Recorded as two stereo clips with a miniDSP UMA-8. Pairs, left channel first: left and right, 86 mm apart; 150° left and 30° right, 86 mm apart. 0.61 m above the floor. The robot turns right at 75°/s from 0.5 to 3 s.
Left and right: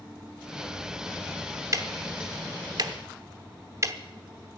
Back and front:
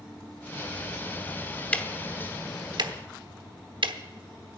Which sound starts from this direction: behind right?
Ticking, at 1.7 s.